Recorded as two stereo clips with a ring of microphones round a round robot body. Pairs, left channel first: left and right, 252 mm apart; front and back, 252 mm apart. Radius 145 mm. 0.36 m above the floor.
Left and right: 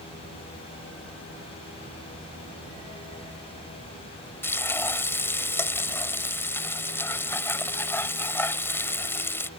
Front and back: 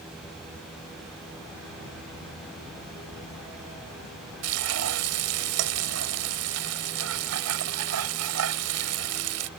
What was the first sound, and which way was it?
Frying, 170° left.